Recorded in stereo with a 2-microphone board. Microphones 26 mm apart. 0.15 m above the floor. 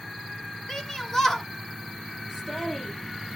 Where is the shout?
20° left (ahead or behind), 1.9 m.